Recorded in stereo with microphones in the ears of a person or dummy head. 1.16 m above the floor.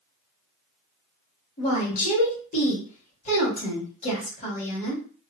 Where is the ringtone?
No ringtone in this recording.